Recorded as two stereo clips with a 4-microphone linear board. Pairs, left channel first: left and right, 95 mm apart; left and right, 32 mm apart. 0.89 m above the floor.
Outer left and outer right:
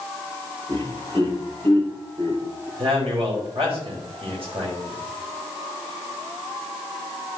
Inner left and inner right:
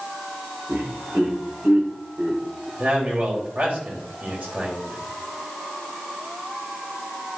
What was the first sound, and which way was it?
Laughter, 75° right (ahead or behind).